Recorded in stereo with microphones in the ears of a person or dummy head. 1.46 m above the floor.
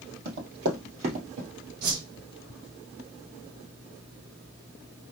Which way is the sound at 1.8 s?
55° right (ahead or behind).